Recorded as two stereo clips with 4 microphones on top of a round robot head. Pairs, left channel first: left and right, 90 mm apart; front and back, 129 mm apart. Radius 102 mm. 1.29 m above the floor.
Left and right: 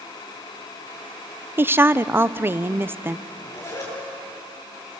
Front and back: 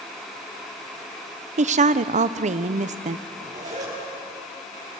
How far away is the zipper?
About 8.5 m.